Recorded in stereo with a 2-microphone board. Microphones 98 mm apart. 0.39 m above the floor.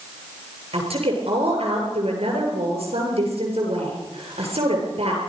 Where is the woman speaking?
80° right, 7.5 m.